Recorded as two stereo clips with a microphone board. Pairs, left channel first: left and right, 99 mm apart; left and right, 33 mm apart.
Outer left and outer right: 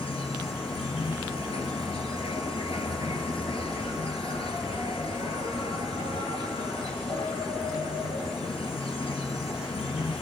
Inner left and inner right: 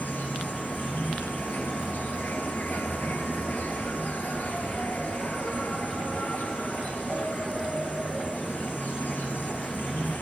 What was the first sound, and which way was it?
An insect, 80° left.